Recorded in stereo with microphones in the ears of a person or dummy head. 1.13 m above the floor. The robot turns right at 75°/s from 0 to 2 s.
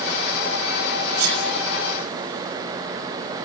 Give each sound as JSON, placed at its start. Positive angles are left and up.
{"t": 1.2, "sound": "a sneeze", "side_deg": -65, "distance_m": 7.5}